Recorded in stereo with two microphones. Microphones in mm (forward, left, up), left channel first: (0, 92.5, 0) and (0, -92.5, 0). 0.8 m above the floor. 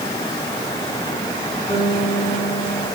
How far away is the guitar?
About 9 m.